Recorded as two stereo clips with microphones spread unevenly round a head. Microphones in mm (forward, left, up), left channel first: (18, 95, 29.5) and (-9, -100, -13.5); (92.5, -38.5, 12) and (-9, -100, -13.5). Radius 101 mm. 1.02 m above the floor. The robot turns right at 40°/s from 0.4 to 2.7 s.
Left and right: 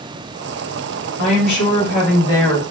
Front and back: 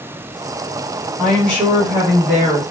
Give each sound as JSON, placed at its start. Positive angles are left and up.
{"t": 1.2, "sound": "a woman speaking", "azimuth_deg": 110, "distance_m": 1.3}